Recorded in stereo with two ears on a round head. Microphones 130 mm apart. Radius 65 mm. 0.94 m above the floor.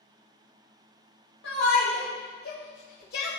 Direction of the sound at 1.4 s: 80° left.